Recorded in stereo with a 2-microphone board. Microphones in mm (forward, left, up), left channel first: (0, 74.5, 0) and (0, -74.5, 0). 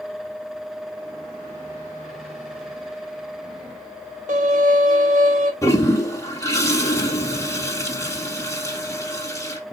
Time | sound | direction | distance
4.3 | a violin | 60° right (ahead or behind) | 2.5 m
5.6 | a toilet flushing | 20° left (ahead or behind) | 3 m